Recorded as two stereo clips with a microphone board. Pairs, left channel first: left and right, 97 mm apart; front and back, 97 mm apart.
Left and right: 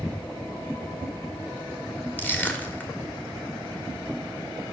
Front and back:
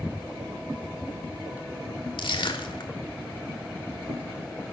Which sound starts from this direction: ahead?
Crushing, at 2.2 s.